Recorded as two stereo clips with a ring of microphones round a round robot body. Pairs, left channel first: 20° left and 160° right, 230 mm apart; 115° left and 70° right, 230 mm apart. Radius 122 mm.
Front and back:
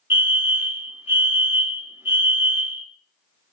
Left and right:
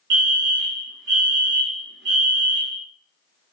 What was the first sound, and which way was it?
A fire alarm, 80° right.